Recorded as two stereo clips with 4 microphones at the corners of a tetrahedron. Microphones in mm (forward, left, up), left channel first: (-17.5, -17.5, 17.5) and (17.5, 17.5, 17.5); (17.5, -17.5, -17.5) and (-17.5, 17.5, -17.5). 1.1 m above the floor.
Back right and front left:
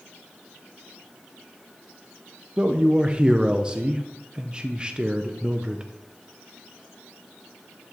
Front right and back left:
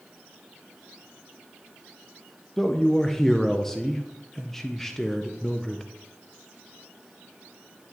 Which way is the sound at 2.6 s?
20° left.